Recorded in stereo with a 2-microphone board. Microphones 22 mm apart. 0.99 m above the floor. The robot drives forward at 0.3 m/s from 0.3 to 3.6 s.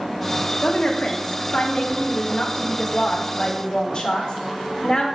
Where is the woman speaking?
55° left (ahead or behind), 1.0 m; by 5.0 s 35° left (ahead or behind), 1.3 m.